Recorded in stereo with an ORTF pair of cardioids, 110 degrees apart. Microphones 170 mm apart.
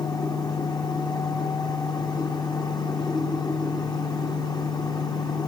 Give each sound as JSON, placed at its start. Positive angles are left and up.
{"t": 0.0, "sound": "a fan", "azimuth_deg": 25, "distance_m": 0.8}